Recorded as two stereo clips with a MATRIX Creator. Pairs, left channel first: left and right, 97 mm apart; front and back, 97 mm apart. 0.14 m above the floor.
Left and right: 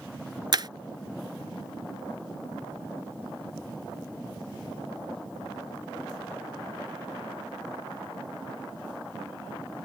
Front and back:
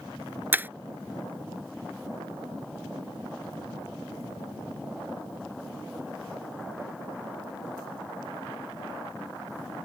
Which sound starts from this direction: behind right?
Breaking glass, at 0.5 s.